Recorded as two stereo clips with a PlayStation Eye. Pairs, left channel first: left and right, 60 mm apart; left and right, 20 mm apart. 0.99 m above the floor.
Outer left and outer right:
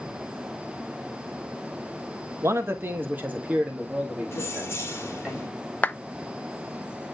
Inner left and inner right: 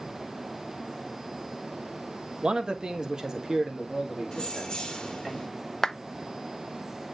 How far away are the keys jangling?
About 1.8 m.